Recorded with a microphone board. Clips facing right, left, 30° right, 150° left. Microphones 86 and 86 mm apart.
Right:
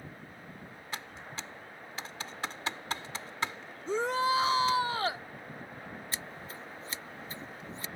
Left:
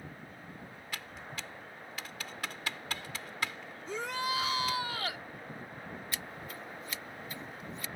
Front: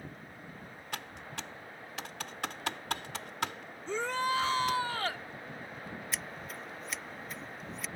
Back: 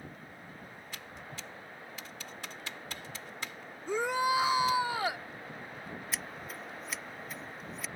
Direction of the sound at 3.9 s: 135° right.